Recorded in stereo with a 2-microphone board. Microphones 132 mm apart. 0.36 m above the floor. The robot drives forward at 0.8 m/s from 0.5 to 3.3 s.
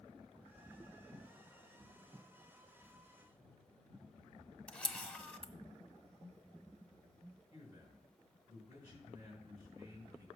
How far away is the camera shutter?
About 0.6 m.